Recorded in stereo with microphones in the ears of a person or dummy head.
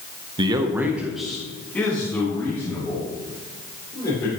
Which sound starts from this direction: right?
A man speaking, at 0.4 s.